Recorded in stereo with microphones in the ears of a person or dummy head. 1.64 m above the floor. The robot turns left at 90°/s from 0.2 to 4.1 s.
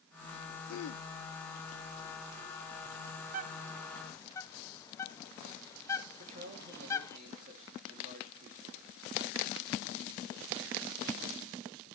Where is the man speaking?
45° right (ahead or behind), 3 m.